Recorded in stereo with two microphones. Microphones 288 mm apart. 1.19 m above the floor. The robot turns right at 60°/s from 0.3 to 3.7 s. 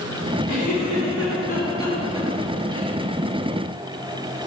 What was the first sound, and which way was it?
A giggle, 85° left.